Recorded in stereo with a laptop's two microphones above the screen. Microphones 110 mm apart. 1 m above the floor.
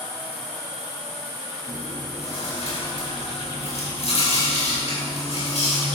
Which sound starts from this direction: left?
Chewing, at 1.7 s.